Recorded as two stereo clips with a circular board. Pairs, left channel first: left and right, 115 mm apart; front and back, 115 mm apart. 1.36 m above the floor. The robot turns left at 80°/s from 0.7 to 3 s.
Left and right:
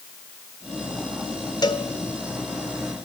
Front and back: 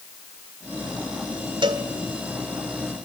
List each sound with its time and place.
1.6 s a cowbell: 140° left, 1.9 m; by 1.9 s 120° left, 1.9 m